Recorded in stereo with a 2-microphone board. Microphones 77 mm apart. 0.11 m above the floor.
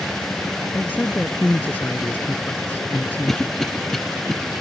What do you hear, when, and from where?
0.7 s a man speaking: 25° left (ahead or behind)
3.3 s a cough: 5° left (ahead or behind)